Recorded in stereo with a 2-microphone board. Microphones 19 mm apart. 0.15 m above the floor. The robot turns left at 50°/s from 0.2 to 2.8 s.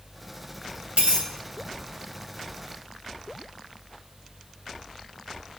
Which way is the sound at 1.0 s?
85° right.